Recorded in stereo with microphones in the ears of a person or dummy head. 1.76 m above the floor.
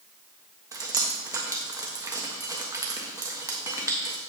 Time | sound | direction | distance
0.7 | dripping | 20° right (ahead or behind) | 1.3 m